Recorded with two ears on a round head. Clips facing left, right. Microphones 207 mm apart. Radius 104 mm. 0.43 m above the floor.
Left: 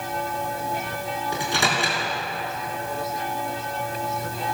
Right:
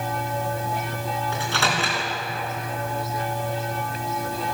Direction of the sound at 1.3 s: 15° left (ahead or behind).